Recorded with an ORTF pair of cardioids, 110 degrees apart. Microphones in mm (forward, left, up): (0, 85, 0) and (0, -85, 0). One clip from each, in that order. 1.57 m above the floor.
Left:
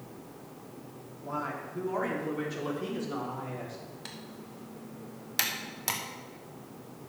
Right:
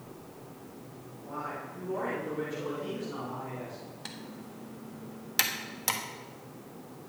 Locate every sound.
1.2 s a man speaking: 60° left, 4 m; by 3.8 s 45° left, 5 m
4.0 s typing on a keyboard: 10° right, 1.4 m